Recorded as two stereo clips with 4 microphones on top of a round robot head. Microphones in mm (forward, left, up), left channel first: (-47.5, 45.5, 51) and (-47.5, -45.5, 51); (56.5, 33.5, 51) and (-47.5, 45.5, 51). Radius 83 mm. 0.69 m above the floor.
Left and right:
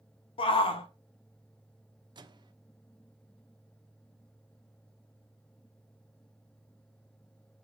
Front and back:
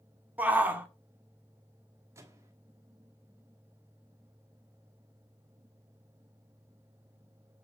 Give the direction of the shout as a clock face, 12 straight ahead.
9 o'clock.